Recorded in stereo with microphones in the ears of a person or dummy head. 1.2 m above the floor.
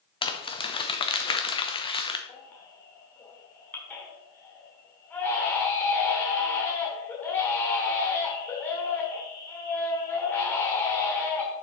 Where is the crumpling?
25° left (ahead or behind), 0.8 m.